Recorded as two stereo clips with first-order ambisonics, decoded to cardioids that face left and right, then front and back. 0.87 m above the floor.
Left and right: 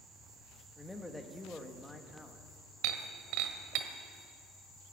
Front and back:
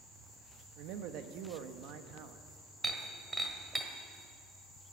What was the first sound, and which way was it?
A man speaking, 175° left.